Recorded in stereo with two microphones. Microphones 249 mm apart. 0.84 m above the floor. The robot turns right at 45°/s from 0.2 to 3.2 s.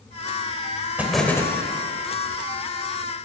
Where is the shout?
No shout in this recording.